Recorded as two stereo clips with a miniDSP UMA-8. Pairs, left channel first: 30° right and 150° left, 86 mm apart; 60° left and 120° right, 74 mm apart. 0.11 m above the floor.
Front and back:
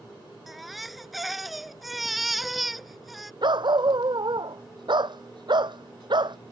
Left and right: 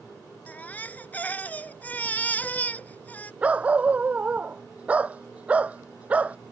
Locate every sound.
0.5 s a baby crying: 60° left
3.4 s a dog barking: 170° left